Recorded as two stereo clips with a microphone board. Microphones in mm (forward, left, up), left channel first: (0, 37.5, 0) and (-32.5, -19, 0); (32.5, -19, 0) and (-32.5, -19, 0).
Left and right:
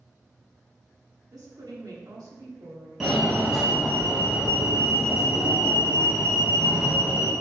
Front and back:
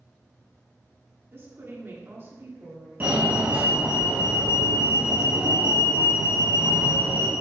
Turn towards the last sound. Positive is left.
turn(degrees=160)